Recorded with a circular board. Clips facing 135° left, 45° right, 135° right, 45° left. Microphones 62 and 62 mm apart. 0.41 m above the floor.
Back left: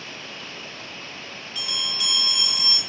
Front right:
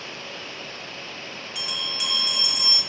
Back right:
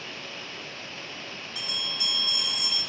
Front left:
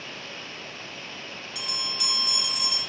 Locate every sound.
1.6 s a bell: 30° left, 0.5 m